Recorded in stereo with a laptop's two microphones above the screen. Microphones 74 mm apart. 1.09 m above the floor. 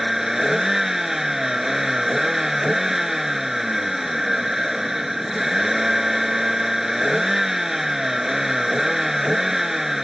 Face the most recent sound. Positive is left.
turn(degrees=-5)  # may be behind; listen again after turning